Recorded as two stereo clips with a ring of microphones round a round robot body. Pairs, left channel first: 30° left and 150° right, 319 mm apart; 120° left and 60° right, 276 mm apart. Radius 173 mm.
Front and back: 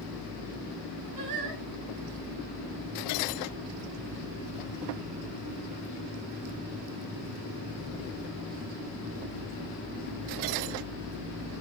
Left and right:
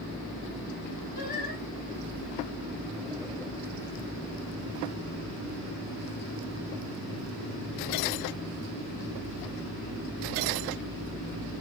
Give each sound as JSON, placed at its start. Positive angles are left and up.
{"t": 1.1, "sound": "singing", "azimuth_deg": -175, "distance_m": 3.5}